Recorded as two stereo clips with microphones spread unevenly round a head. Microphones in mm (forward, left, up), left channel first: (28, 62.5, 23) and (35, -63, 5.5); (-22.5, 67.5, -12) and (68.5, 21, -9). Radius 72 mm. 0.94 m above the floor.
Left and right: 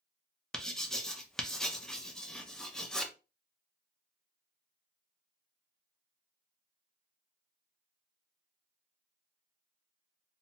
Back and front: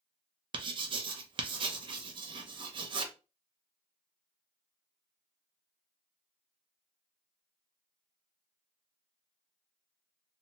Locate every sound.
0.5 s writing: 5° left, 0.6 m